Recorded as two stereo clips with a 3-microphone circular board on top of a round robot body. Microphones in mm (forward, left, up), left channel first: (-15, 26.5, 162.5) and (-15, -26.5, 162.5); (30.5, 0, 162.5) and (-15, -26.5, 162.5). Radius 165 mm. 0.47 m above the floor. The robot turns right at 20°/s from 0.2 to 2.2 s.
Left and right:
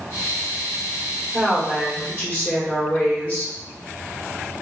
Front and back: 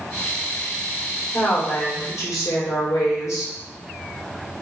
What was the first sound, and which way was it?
A woman speaking, 5° right.